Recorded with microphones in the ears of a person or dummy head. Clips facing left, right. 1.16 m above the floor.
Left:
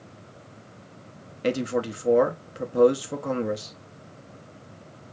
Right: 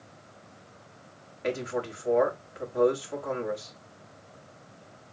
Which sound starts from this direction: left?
A man speaking, at 1.4 s.